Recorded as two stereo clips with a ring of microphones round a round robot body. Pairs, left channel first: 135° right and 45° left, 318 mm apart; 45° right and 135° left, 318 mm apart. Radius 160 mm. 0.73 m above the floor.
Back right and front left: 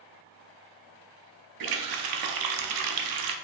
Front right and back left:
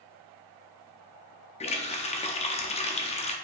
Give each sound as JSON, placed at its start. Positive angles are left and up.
{"t": 1.6, "sound": "a running tap", "azimuth_deg": 25, "distance_m": 0.7}